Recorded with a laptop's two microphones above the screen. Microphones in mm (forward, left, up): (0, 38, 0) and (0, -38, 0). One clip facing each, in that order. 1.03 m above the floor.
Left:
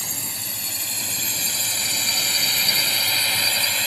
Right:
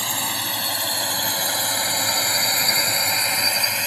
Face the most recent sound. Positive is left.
turn(degrees=-10)  # may be behind; listen again after turning